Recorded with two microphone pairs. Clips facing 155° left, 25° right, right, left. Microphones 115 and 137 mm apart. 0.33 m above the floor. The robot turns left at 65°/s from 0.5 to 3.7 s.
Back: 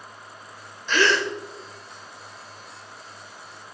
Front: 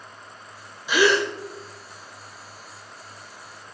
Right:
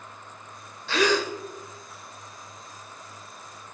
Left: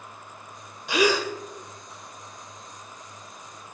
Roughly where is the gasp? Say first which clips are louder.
Front 2 dB, left 1 dB; ahead left.